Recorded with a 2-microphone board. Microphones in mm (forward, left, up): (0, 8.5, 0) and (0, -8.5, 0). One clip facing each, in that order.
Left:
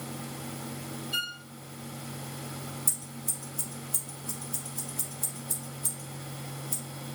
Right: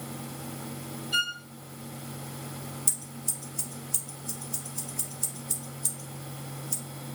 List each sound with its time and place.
1.1 s a violin: 35° right (ahead or behind), 1.1 m
2.9 s scissors: 45° right (ahead or behind), 3 m